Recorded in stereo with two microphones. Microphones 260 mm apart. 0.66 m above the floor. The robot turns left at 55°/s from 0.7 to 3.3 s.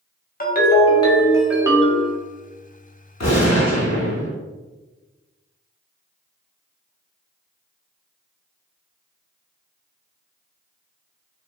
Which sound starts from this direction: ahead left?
A ringtone, at 0.4 s.